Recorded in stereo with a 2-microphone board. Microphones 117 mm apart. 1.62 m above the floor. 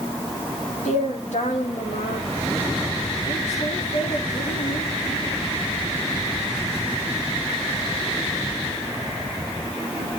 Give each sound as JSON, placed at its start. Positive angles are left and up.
{"t": 0.8, "sound": "a woman speaking", "side_deg": 85, "distance_m": 3.5}